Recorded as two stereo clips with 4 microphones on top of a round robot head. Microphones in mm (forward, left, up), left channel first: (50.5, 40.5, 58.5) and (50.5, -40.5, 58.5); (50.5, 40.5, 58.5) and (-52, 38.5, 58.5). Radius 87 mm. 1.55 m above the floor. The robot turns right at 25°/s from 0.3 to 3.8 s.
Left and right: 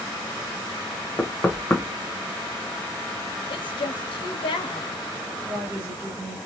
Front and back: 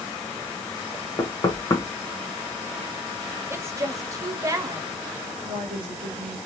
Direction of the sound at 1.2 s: 30° left.